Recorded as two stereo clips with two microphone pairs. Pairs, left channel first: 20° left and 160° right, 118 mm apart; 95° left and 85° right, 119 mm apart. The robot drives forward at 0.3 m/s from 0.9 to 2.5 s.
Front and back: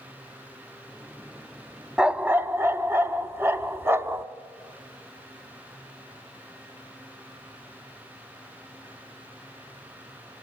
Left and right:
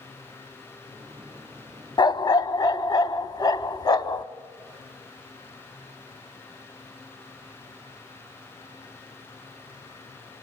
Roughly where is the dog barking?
Behind left.